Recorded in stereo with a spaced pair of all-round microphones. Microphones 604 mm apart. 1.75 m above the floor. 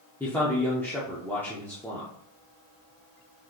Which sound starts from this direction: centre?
A man speaking, at 0.2 s.